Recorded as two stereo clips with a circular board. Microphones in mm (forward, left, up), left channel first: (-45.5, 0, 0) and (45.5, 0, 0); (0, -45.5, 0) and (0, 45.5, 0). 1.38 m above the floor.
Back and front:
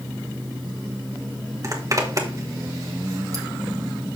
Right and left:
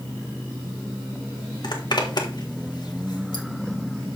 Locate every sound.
1.6 s a zipper: 55° right, 1.6 m